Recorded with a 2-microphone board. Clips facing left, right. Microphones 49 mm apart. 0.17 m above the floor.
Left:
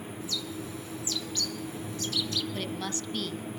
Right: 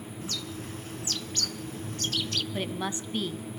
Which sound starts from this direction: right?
A bird, at 0.2 s.